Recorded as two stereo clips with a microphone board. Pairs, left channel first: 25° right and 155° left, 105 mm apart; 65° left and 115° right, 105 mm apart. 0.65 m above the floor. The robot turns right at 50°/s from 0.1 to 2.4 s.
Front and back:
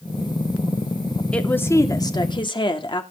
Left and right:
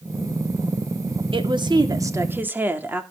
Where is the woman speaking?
100° right, 1.8 m; by 3.0 s 45° right, 1.8 m.